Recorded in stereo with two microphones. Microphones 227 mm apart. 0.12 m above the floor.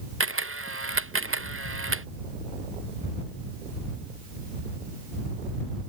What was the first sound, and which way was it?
A camera shutter, 75° right (ahead or behind).